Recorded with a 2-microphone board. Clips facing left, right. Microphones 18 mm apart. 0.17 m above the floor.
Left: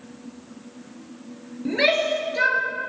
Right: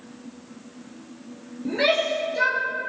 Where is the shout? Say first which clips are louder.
Left 1 dB; 25° left (ahead or behind), 3 m.